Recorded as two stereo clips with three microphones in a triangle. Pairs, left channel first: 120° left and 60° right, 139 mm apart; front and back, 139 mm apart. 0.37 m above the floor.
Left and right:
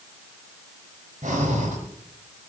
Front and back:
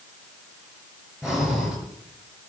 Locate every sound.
1.2 s breathing: 95° right, 5.5 m